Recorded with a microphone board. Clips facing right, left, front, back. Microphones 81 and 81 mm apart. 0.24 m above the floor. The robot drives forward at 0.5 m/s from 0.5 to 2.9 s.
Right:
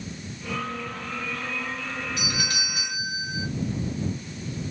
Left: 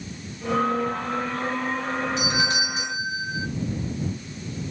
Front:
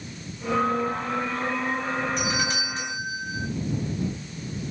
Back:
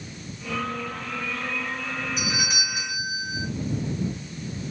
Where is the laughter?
No laughter in this recording.